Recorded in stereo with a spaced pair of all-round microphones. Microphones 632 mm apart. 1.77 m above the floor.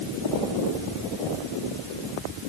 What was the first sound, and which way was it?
Only background noise.